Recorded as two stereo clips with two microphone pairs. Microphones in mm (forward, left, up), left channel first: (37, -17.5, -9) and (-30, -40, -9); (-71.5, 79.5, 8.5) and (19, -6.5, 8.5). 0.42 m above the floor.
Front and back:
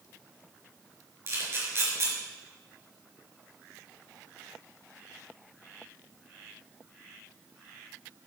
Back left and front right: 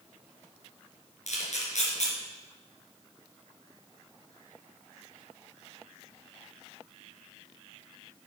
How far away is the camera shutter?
About 4 m.